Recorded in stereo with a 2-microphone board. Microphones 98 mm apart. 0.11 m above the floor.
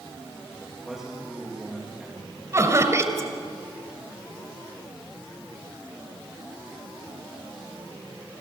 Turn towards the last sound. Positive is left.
turn(degrees=-35)  # may be behind; listen again after turning